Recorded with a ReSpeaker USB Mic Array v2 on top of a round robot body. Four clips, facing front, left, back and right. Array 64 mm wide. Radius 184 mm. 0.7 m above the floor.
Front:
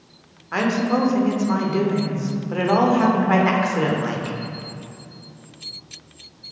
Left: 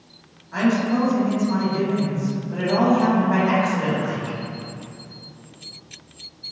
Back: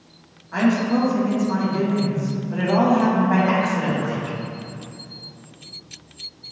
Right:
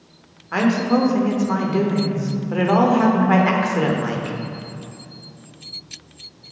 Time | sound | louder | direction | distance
0.5 | a woman speaking | right 2 dB, back 1 dB | 50° right | 3 m